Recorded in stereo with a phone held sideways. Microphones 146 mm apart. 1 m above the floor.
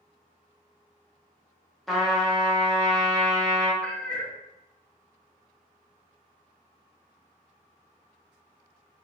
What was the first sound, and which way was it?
A trumpet, centre (ahead or behind).